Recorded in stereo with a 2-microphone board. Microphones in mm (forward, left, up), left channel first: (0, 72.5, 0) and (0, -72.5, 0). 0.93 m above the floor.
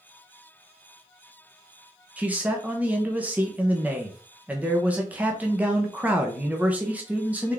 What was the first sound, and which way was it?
A man speaking, 10° right (ahead or behind).